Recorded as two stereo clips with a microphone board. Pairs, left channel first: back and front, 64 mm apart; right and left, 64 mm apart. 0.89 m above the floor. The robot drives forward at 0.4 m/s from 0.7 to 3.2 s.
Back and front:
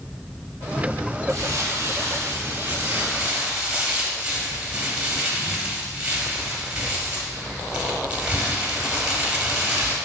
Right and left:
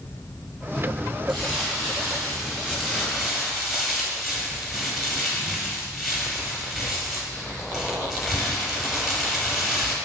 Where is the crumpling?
Straight ahead, 1.1 m; by 9.9 s 5° left, 0.7 m.